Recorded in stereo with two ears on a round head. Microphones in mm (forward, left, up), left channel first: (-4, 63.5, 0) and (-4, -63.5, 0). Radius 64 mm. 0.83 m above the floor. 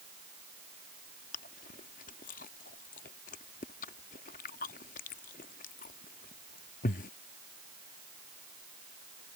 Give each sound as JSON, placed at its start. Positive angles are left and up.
{"t": 1.3, "sound": "chewing", "side_deg": 60}